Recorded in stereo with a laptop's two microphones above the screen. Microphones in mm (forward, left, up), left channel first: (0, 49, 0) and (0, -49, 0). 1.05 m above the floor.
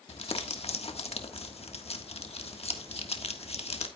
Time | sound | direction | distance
0.1 | crumpling | 80° left | 1.4 m